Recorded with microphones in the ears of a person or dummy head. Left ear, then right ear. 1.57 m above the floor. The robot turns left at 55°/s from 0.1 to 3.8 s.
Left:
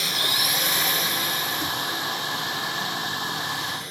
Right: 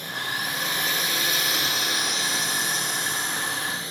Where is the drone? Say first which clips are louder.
Left 6 dB; 50° left; by 3.9 s 155° right.